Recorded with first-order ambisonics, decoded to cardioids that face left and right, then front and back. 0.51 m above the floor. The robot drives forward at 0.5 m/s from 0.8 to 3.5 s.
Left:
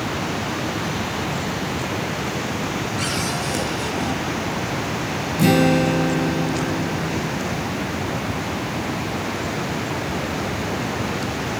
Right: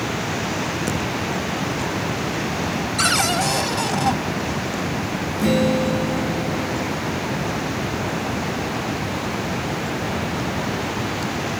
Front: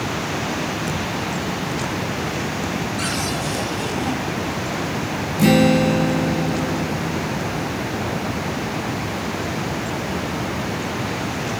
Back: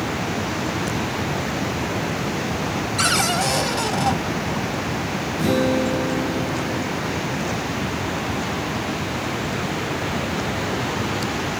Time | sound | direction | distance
3.0 | a cupboard door | 140° right | 2.0 m
5.4 | a guitar | 55° left | 3.5 m